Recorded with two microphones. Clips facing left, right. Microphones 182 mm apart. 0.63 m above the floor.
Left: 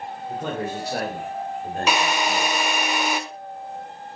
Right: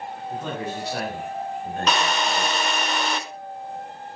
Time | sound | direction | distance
0.3 | a man speaking | 50° left (ahead or behind) | 2.5 m
1.9 | a drill | 10° left (ahead or behind) | 0.7 m